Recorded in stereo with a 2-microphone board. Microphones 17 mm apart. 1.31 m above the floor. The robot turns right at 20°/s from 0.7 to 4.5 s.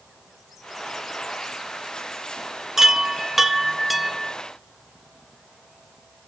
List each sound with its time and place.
2.8 s a chime: 30° right, 0.7 m; by 4.3 s straight ahead, 0.7 m